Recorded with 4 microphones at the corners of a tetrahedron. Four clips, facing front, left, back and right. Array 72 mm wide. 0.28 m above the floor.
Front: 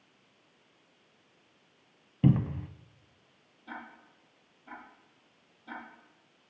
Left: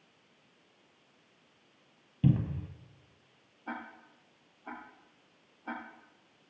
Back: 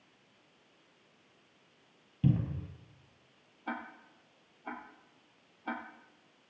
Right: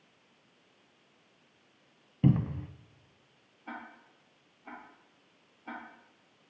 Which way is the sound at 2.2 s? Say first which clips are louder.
Right 2 dB, front 5 dB; 35° right.